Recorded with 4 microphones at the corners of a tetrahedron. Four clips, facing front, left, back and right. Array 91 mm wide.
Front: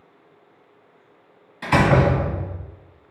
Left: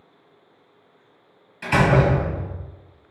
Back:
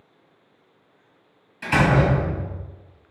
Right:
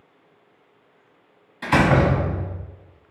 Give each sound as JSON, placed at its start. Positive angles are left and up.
{"t": 1.6, "sound": "a door slam", "azimuth_deg": -45, "distance_m": 1.2}